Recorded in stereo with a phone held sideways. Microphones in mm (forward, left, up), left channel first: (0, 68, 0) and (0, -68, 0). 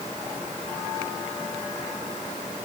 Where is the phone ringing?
No phone ringing in this recording.